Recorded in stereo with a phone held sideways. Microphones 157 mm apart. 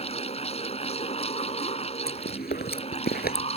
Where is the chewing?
85° left.